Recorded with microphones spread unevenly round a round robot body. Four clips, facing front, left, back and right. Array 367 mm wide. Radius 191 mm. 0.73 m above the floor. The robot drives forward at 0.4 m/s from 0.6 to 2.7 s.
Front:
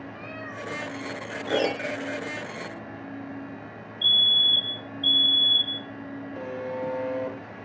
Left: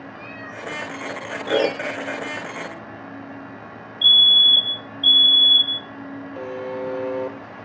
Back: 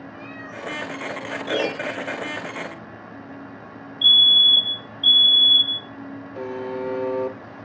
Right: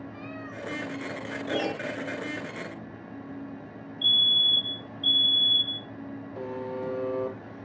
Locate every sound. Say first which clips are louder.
0.1 s a cat meowing: left 3 dB, back 1 dB; 160° right, 4.5 m
1.5 s a piano: left 9 dB, even; 100° left, 1.9 m; by 2.0 s 105° left, 1.9 m
4.0 s a fire alarm: left 9 dB, back 6 dB; 170° left, 4 m
6.3 s a buzzer: left 5 dB, back 4 dB; 155° left, 4 m